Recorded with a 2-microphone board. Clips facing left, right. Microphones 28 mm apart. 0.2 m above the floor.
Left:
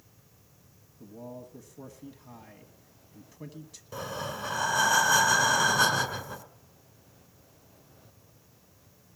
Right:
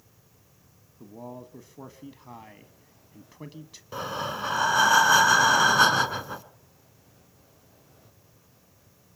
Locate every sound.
1.0 s a man speaking: 30° right (ahead or behind), 1.3 m
3.9 s breathing: 25° right (ahead or behind), 1.4 m